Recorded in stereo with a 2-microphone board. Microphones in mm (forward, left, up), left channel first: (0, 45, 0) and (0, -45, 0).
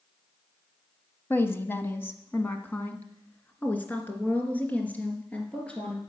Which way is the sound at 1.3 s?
25° left (ahead or behind).